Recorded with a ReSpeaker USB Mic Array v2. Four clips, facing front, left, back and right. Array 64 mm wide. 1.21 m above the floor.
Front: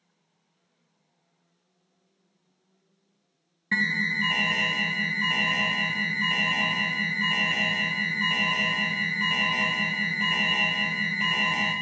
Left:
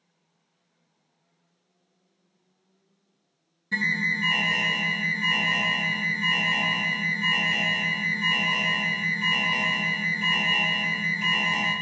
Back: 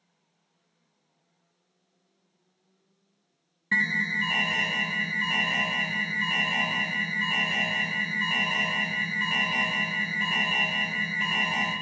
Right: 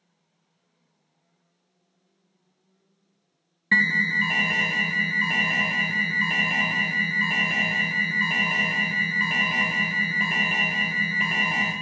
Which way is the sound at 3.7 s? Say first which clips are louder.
Right 5 dB, even; 85° right.